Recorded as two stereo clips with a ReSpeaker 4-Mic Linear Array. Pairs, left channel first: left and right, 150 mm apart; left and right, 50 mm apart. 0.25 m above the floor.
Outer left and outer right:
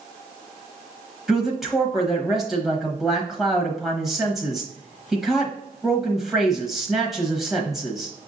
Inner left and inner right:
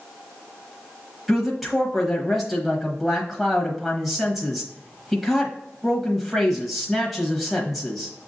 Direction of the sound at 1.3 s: Centre (ahead or behind).